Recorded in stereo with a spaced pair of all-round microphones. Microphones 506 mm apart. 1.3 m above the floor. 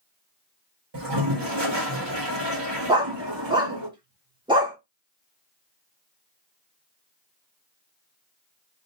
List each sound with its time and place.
0.9 s a toilet flushing: 55° right (ahead or behind), 1.5 m
2.9 s a dog barking: 10° right (ahead or behind), 0.9 m